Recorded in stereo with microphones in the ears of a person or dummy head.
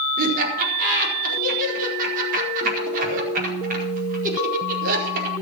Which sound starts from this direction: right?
Laughter, at 0.2 s.